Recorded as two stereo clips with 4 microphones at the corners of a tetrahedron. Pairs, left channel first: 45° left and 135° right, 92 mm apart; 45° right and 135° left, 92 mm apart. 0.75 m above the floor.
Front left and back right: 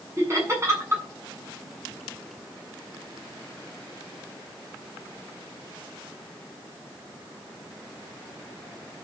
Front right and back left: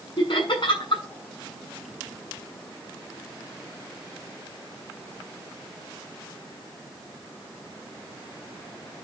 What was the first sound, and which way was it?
Laughter, 75° right.